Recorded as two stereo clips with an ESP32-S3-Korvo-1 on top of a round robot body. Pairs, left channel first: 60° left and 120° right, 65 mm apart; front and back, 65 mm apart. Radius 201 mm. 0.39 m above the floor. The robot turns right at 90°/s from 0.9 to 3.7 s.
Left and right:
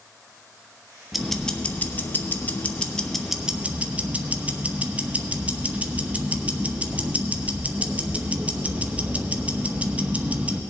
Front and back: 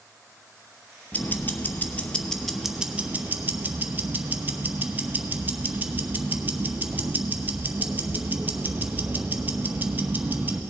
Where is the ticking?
35° right, 1.1 m; by 10.6 s 165° right, 1.1 m.